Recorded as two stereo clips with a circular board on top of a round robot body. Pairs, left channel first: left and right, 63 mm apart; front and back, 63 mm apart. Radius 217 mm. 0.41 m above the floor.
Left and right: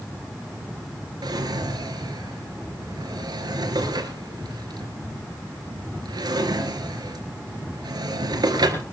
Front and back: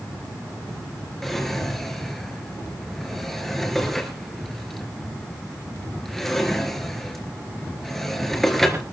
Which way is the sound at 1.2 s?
85° right.